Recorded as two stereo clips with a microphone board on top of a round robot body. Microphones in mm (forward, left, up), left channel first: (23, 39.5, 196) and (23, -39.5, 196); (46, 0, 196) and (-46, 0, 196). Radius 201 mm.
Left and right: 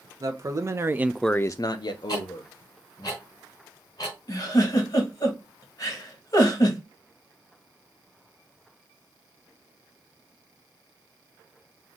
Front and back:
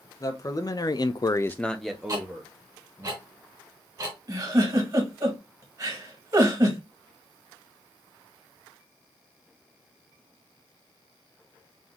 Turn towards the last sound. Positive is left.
turn(degrees=130)